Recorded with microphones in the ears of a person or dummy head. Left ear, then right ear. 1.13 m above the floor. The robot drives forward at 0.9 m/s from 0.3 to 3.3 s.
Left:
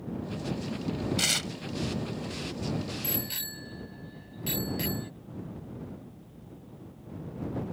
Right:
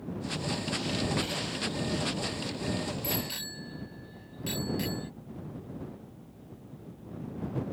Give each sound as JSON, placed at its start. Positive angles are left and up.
{"t": 1.2, "sound": "tearing paper", "side_deg": 70}
{"t": 3.0, "sound": "a bicycle bell", "side_deg": 5}